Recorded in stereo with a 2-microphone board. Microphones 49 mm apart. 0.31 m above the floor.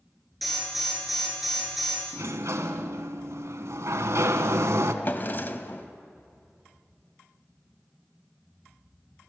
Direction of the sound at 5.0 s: 45° left (ahead or behind).